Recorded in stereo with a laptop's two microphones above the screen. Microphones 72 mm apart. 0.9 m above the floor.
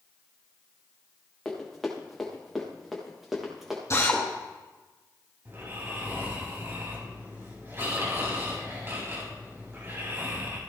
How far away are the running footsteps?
About 6 m.